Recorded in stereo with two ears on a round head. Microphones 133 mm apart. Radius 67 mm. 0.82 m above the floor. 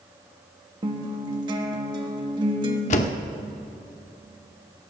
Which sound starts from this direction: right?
A guitar, at 0.8 s.